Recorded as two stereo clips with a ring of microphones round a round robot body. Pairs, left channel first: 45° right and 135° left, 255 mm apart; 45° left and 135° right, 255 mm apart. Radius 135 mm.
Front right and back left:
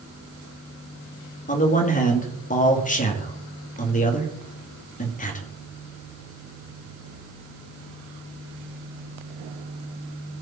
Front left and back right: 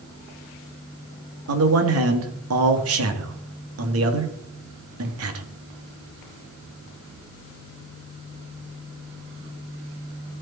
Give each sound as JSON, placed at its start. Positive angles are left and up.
{"t": 1.5, "sound": "a man speaking", "azimuth_deg": -105, "distance_m": 2.0}